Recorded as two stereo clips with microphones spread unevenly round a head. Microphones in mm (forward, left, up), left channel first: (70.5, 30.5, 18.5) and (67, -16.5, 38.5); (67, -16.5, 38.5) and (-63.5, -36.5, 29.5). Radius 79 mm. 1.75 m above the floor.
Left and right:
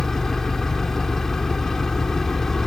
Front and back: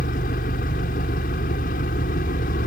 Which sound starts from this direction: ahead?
An engine running, at 0.0 s.